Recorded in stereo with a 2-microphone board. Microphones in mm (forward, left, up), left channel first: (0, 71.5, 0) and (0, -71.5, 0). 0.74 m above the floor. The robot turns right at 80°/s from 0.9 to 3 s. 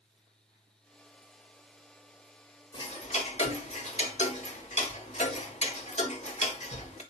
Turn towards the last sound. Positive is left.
turn(degrees=50)  # may be behind; listen again after turning